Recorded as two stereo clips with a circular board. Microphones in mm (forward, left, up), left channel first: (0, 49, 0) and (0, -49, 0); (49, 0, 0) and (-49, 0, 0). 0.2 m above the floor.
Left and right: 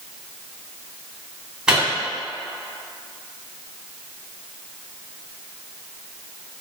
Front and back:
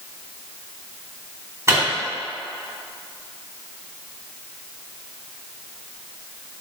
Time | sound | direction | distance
1.7 | a microwave | 165° right | 1.0 m